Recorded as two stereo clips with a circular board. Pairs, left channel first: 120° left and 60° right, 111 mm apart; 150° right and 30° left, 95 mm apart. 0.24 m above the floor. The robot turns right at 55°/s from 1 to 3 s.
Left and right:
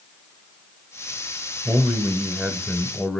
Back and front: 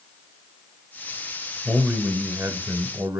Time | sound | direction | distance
1.6 | a man speaking | 5° right | 1.0 m